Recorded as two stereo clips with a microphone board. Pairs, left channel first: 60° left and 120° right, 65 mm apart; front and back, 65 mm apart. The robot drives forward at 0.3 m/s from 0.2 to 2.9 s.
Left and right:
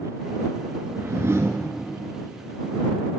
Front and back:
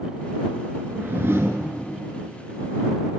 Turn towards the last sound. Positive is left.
turn(degrees=-160)